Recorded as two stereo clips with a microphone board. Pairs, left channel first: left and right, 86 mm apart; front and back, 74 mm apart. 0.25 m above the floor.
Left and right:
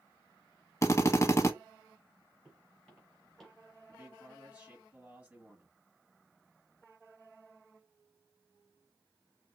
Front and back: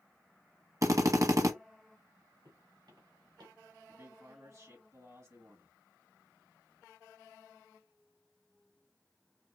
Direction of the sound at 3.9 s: 160° right.